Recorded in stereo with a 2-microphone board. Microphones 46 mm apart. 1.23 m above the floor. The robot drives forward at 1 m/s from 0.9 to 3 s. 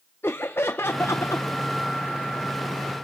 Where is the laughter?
60° left (ahead or behind), 0.6 m.